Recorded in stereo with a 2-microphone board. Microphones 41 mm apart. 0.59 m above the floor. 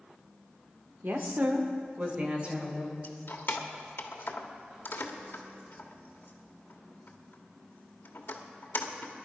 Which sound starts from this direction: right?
A woman speaking, at 1.0 s.